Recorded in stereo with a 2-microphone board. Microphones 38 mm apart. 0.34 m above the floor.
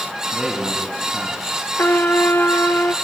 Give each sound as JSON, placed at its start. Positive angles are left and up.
{"t": 0.3, "sound": "a man speaking", "side_deg": -25, "distance_m": 4.0}
{"t": 1.8, "sound": "a trumpet", "side_deg": 70, "distance_m": 1.9}